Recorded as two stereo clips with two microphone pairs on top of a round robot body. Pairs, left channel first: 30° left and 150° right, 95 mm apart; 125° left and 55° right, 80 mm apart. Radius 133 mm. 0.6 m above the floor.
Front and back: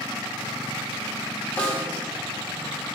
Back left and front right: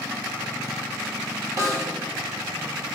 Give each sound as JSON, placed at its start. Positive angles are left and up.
{"t": 1.6, "sound": "a snare drum", "azimuth_deg": -25, "distance_m": 1.1}